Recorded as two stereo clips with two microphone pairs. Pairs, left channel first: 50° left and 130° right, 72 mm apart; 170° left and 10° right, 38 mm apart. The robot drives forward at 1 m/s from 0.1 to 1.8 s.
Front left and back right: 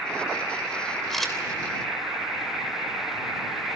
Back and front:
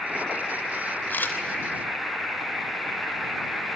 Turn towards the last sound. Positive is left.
turn(degrees=145)